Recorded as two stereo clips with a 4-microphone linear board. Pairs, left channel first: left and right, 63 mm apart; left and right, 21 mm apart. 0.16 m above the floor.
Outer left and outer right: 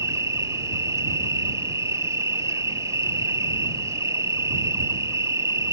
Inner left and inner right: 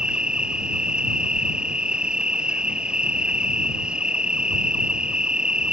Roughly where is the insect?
Right.